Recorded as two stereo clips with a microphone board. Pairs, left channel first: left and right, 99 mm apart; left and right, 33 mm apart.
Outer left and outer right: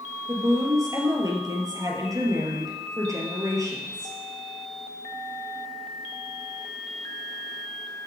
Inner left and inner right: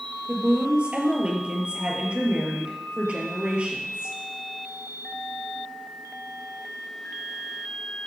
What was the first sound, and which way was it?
A woman speaking, 35° right (ahead or behind).